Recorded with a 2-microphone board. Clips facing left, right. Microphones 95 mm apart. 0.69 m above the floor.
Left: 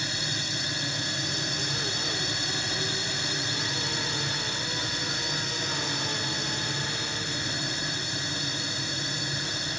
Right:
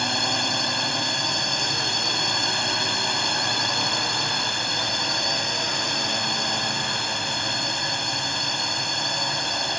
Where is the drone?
65° right (ahead or behind).